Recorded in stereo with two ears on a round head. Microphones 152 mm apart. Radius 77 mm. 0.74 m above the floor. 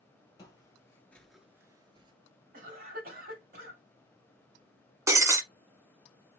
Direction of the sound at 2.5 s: 55° right (ahead or behind).